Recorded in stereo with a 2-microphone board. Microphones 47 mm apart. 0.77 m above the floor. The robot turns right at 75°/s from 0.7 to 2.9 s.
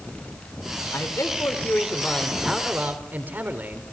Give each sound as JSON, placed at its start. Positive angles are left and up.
{"t": 0.9, "sound": "a man speaking", "azimuth_deg": 75, "distance_m": 3.5}